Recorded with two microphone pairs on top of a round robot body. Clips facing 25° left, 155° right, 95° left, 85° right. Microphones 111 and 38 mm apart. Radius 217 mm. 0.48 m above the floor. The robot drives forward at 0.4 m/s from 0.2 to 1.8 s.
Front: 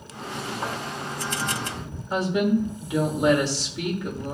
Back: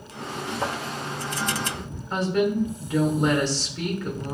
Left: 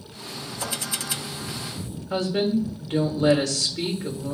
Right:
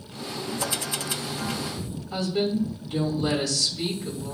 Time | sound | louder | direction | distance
0.6 | a thud | back 3 dB, right 1 dB | 175° right | 2.5 m
2.1 | a woman speaking | front 1 dB, left 3 dB | 105° left | 3.5 m